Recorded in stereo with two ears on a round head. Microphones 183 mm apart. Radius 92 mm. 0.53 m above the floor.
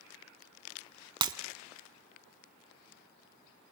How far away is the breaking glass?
About 0.7 m.